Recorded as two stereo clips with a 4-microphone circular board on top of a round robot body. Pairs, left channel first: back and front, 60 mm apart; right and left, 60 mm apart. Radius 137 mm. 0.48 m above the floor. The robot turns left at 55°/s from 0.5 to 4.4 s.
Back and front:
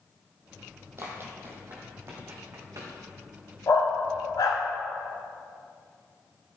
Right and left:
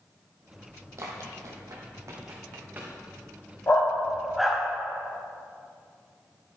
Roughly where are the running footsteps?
Ahead left.